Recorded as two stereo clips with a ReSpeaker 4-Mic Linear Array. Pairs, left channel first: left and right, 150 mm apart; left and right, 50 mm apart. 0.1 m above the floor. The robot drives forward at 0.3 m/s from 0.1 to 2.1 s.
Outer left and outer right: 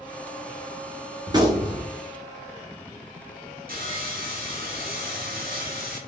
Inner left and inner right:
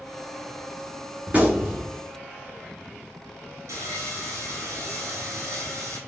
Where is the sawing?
80° right, 1.3 m.